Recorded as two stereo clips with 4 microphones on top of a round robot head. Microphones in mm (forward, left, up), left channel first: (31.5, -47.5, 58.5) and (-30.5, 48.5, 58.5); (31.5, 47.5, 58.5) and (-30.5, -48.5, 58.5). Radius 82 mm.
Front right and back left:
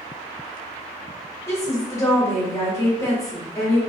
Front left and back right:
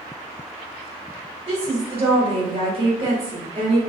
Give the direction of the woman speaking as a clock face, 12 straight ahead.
4 o'clock.